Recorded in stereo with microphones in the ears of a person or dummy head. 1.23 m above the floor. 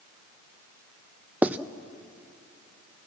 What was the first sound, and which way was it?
Writing, 10° right (ahead or behind).